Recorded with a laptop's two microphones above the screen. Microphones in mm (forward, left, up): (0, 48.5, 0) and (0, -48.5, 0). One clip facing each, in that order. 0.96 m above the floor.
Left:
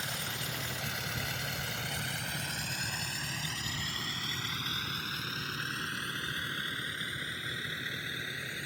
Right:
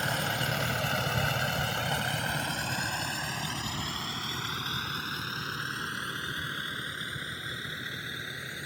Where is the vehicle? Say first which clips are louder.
Right 9 dB; 65° right (ahead or behind); by 8.7 s 20° right (ahead or behind).